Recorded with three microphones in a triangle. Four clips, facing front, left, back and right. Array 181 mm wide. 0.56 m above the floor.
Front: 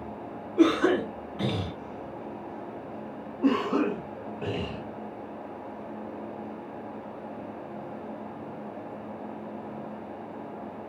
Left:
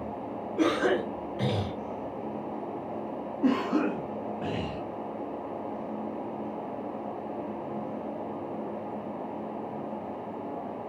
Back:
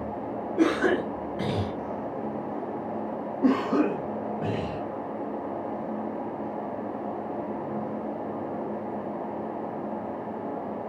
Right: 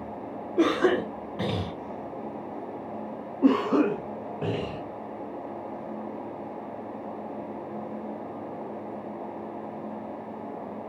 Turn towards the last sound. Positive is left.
turn(degrees=-105)